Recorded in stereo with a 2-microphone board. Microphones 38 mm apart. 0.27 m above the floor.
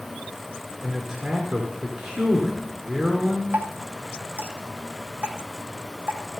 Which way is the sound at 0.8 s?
5° right (ahead or behind).